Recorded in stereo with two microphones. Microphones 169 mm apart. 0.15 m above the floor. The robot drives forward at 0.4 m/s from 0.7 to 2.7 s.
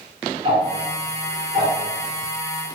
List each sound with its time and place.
0.4 s ticking: 35° right (ahead or behind), 1.0 m; by 2.7 s 20° right (ahead or behind), 1.5 m